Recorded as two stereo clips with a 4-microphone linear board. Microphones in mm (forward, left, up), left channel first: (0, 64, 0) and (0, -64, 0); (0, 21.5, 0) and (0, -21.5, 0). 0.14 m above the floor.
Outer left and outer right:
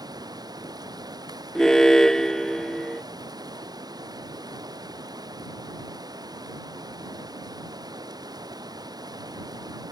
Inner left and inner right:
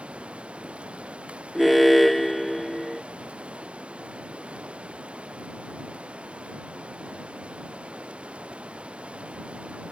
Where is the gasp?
No gasp in this recording.